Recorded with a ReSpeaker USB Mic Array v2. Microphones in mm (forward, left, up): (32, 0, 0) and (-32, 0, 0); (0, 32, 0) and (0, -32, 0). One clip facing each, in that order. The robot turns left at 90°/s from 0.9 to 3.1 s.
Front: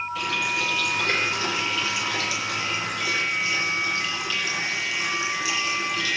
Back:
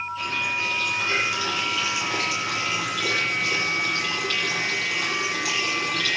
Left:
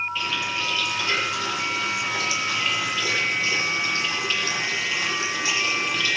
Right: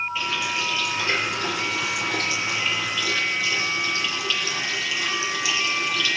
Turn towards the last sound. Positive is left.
turn(degrees=145)